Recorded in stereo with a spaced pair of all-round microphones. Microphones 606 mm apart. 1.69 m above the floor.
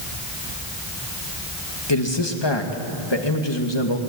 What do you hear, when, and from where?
1.9 s a man speaking: 40° left (ahead or behind), 2.5 m